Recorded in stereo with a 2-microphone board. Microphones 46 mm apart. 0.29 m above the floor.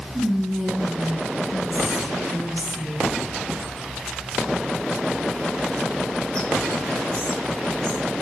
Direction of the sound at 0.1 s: 25° left (ahead or behind).